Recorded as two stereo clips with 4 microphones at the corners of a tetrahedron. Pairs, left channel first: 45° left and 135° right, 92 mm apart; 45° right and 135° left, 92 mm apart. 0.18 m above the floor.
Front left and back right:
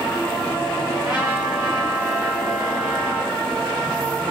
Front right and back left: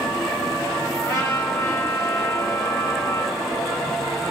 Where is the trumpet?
65° right, 1.9 m.